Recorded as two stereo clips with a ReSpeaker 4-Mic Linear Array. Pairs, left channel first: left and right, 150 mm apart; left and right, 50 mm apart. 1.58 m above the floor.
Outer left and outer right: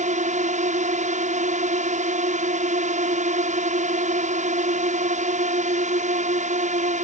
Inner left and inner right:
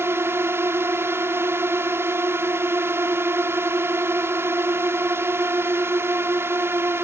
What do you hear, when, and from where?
0.0 s a drone: 55° right (ahead or behind)